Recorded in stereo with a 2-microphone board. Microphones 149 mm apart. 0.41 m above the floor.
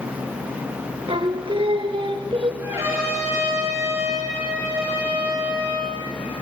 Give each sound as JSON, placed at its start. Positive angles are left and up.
{"t": 1.1, "sound": "singing", "side_deg": -40, "distance_m": 1.0}
{"t": 2.6, "sound": "a trumpet", "side_deg": -20, "distance_m": 6.5}